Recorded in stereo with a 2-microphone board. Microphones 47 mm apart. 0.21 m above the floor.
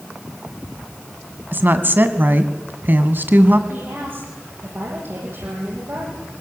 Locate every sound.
1.5 s a woman speaking: 45° right (ahead or behind), 2.0 m
3.7 s a woman speaking: 60° right (ahead or behind), 10 m